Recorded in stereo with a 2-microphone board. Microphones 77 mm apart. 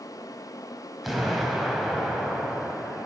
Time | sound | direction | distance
1.0 | an explosion | 5° right (ahead or behind) | 1.6 m